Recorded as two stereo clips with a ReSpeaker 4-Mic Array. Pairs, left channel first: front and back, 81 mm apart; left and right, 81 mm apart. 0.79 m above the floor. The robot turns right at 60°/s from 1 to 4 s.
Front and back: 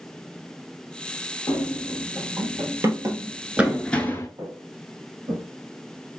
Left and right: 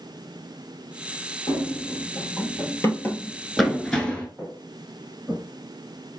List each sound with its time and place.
1.5 s running footsteps: 55° left, 2.5 m; by 4.3 s 30° left, 0.9 m
4.4 s footsteps: 170° right, 2.5 m; by 5.4 s 155° right, 2.5 m